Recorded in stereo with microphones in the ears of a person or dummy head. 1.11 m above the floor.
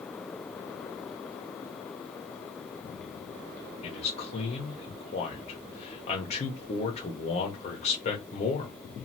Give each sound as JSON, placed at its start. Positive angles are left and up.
{"t": 3.8, "sound": "a man speaking", "side_deg": 30, "distance_m": 0.8}